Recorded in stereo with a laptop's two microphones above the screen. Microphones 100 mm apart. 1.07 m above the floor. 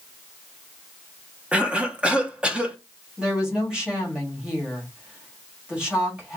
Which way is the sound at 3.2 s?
10° right (ahead or behind).